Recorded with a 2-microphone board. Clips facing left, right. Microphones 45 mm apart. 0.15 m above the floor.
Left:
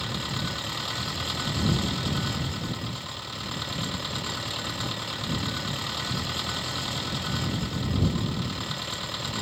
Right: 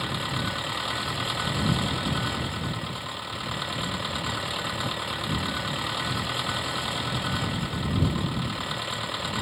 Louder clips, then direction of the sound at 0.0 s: Right 2 dB; 15° right (ahead or behind).